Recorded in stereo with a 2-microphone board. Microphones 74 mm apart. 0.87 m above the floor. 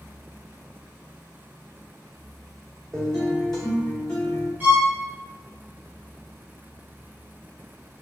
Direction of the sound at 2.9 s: 5° left (ahead or behind).